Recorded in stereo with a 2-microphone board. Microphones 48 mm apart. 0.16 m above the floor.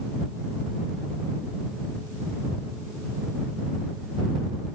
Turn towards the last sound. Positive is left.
No sound to turn to.